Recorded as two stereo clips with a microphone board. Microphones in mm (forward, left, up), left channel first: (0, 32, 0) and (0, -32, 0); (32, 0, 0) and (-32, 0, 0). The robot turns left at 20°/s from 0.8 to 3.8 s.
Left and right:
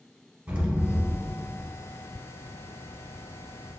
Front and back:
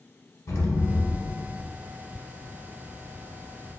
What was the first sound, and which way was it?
An explosion, 25° right.